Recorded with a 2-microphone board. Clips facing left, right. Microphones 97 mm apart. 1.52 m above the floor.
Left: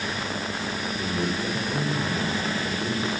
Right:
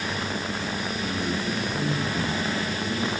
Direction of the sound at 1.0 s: 35° left (ahead or behind).